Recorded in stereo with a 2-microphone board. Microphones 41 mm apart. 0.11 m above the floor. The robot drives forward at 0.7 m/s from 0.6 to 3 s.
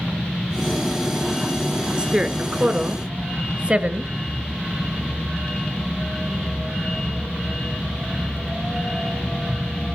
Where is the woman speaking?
20° right (ahead or behind), 1.3 m; by 4.1 s 25° right (ahead or behind), 1.1 m.